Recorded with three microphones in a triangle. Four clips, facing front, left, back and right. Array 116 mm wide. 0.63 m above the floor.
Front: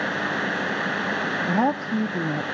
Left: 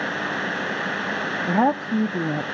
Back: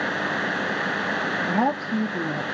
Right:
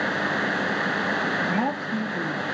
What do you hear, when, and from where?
1.5 s a woman speaking: 80° left, 0.6 m